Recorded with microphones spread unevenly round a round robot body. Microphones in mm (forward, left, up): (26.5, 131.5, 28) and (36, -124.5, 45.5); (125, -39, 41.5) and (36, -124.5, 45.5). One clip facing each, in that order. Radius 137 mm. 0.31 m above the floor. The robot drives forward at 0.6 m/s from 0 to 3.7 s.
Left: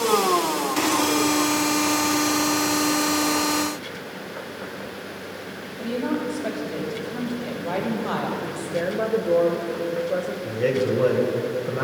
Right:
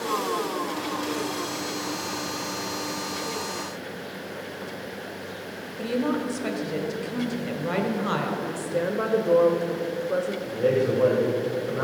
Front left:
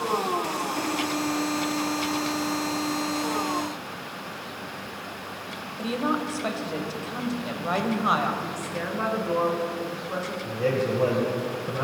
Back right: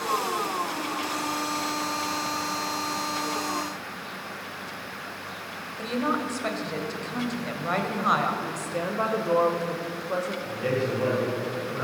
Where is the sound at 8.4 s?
165° right, 1.0 m.